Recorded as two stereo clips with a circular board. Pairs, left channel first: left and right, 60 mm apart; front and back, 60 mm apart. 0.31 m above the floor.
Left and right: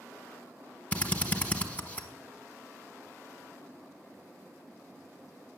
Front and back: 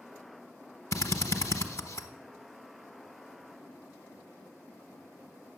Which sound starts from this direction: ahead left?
A drill, at 0.9 s.